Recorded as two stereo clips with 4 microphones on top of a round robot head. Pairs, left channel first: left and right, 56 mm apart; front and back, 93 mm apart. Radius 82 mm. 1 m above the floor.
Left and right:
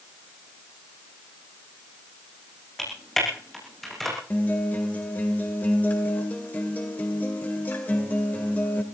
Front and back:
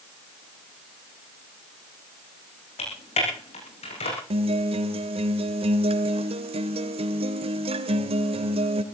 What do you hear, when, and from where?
2.8 s typing on a keyboard: 5° left, 9.5 m
4.3 s a guitar: 160° left, 2 m